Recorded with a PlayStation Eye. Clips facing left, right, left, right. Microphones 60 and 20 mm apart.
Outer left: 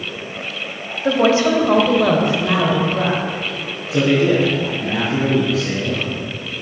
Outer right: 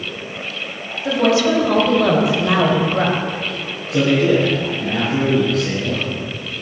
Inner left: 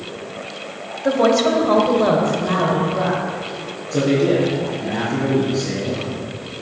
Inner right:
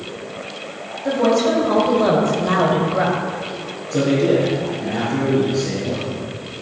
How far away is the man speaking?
About 4.5 m.